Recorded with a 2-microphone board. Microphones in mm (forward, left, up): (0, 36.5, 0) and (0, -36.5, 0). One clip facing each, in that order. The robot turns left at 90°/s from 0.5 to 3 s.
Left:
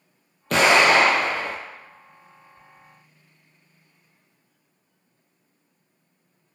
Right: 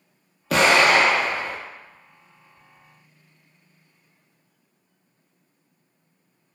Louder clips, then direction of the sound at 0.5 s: Even; straight behind.